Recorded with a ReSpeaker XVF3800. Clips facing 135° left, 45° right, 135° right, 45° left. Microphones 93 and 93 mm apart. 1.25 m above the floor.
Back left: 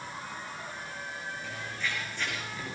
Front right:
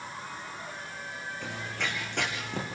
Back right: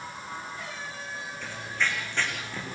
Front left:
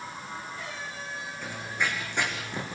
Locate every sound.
1.4 s running footsteps: 30° right, 5.5 m; by 2.8 s 25° right, 5.5 m